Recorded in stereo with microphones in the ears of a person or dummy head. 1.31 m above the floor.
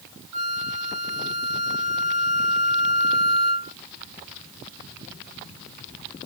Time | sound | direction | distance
0.3 | a flute | 80° right | 1.0 m